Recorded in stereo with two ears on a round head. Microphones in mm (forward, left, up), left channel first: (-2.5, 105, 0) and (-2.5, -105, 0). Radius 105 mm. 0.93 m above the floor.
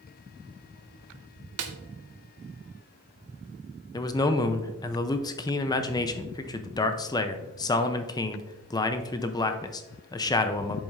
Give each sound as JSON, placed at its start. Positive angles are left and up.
{"t": 1.6, "sound": "a snare drum", "side_deg": -70, "distance_m": 0.9}
{"t": 3.9, "sound": "a man speaking", "side_deg": 15, "distance_m": 0.6}